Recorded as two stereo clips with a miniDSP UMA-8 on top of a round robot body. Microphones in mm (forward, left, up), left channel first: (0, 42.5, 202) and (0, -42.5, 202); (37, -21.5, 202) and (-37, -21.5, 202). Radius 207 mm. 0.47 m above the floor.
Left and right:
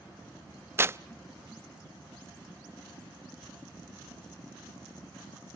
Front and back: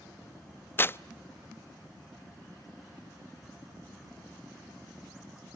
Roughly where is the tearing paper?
Ahead right.